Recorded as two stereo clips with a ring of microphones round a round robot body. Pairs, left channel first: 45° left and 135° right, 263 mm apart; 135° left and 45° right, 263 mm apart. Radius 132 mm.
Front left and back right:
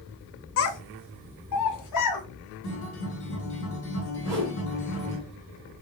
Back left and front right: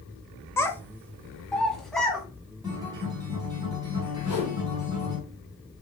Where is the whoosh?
145° left, 2.5 m.